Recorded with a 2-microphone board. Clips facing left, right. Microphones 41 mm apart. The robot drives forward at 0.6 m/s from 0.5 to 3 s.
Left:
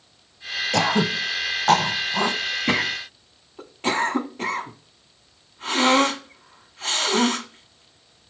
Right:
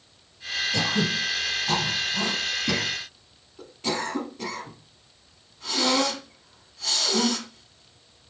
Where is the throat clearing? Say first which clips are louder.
Left 5 dB; 70° left (ahead or behind), 1.1 m; by 8.3 s 45° left (ahead or behind), 1.4 m.